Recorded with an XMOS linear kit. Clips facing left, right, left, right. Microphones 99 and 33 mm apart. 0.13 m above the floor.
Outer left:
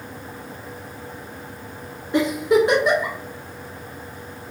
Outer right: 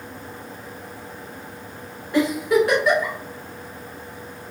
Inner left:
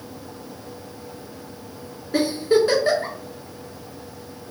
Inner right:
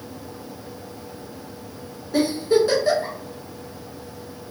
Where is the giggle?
20° left (ahead or behind), 1.3 m.